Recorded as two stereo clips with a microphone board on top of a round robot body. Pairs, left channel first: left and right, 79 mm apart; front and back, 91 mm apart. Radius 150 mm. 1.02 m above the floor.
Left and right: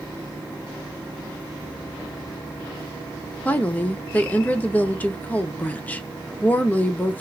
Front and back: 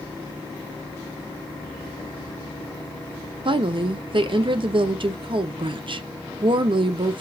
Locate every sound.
3.5 s a woman speaking: 160° left, 0.7 m